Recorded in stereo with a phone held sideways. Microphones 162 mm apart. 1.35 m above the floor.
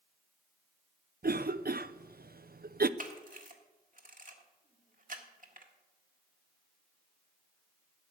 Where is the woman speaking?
I don't hear a woman speaking.